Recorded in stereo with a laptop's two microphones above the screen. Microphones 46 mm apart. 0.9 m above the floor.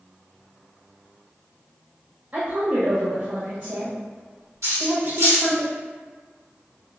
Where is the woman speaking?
40° right (ahead or behind), 0.9 m.